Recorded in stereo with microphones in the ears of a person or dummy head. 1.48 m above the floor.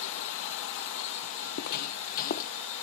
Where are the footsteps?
60° left (ahead or behind); by 2.5 s 50° left (ahead or behind).